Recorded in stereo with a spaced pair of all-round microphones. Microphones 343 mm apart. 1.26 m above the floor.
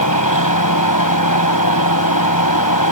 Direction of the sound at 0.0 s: 70° left (ahead or behind).